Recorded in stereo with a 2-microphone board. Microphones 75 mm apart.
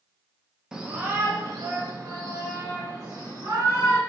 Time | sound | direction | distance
0.7 | a shout | 10° right (ahead or behind) | 0.5 m